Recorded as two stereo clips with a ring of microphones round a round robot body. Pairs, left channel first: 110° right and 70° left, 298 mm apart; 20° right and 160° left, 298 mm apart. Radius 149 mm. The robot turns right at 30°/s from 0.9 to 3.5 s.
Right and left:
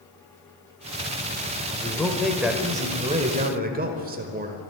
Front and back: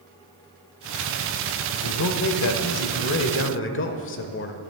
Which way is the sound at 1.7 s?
40° right.